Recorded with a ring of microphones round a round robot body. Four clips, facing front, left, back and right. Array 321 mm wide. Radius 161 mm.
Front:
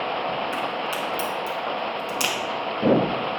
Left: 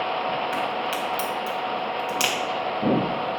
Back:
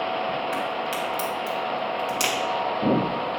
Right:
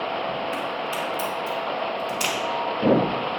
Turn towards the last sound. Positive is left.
turn(degrees=95)